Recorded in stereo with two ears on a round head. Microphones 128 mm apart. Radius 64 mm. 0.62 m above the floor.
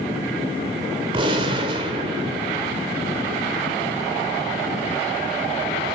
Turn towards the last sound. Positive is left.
turn(degrees=-40)  # may be behind; listen again after turning